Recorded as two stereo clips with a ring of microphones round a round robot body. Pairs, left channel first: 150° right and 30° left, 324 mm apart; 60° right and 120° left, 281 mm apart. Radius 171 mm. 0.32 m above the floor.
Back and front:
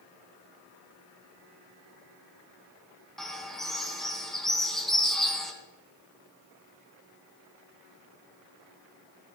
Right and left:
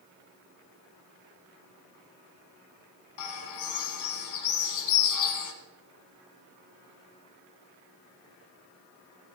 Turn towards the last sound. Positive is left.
turn(degrees=-60)